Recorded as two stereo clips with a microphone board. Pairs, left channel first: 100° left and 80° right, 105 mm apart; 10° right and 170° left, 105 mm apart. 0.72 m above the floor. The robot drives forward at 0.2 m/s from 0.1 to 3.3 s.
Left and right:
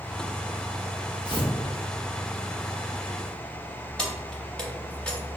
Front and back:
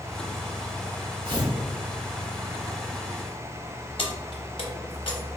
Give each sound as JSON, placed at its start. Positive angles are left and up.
{"t": 1.2, "sound": "tearing paper", "azimuth_deg": 130, "distance_m": 0.8}
{"t": 4.0, "sound": "keys jangling", "azimuth_deg": 15, "distance_m": 0.6}